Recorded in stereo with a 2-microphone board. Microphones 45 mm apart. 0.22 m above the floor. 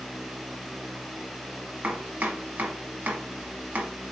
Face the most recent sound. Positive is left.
turn(degrees=-35)  # may be behind; listen again after turning